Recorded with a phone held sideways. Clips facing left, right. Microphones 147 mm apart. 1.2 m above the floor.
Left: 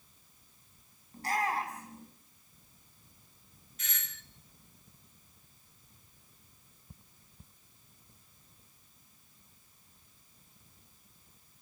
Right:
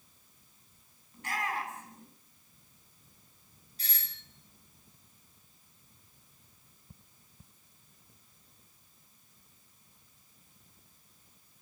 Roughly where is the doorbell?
Right.